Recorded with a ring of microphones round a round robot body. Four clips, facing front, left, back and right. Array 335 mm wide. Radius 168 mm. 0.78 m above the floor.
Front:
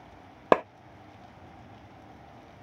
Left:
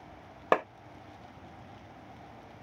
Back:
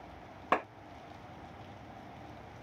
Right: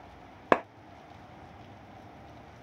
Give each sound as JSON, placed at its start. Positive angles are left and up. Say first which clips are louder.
{"t": 0.5, "sound": "a clap", "louder": "right 2 dB, front 9 dB", "azimuth_deg": -20, "distance_m": 0.5}